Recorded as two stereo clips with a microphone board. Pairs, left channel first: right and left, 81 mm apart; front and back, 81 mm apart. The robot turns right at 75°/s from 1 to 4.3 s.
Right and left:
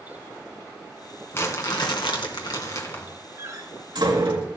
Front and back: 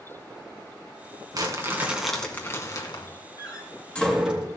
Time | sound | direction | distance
1.3 | crumpling | 150° right | 2.5 m
3.4 | a door slam | 30° left | 3.5 m